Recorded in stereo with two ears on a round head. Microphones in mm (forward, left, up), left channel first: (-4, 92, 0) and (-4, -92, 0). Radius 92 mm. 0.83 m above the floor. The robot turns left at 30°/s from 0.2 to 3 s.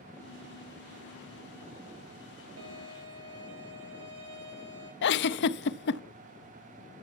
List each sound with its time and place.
2.6 s a violin: 75° right (ahead or behind), 3.5 m; by 4.9 s 85° right, 3.5 m
5.0 s a giggle: 55° left (ahead or behind), 0.6 m